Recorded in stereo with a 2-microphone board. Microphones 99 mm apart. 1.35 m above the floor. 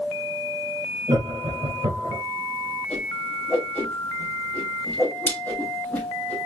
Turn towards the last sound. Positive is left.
turn(degrees=15)  # may be behind; listen again after turning